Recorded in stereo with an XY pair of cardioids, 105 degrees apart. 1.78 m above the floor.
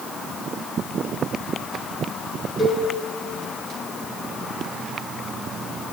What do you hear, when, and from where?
2.6 s a cowbell: 10° right, 3.5 m